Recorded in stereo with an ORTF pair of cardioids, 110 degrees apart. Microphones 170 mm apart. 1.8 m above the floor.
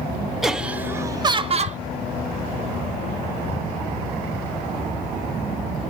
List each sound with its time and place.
0.4 s laughter: straight ahead, 1.5 m; by 1.8 s 50° right, 0.9 m